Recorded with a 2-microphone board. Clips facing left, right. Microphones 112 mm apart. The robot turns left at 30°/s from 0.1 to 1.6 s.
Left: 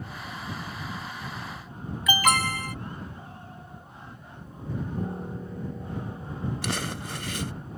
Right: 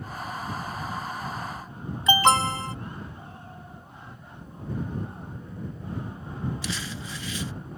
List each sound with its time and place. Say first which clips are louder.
2.1 s an alarm: right 4 dB; 30° right (ahead or behind)
5.0 s a piano: left 4 dB; 80° left
6.6 s crumpling: left 3 dB; 65° left (ahead or behind)